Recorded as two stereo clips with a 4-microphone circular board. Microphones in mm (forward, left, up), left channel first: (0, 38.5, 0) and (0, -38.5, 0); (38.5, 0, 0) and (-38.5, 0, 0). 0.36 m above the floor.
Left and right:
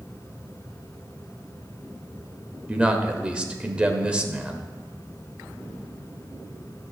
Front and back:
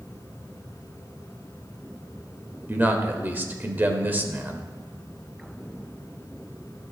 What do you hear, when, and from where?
2.7 s a man speaking: 150° right, 1.0 m